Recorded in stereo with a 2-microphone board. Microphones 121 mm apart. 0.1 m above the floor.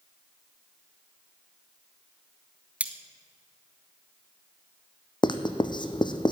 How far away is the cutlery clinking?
About 1.0 m.